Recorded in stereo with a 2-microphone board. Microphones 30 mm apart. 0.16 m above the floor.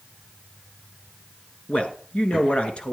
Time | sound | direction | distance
1.7 | a man speaking | 40° left (ahead or behind) | 2.0 m